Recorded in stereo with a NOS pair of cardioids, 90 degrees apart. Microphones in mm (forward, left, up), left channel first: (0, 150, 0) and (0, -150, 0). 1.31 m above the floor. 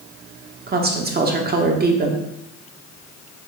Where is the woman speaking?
30° right, 0.8 m.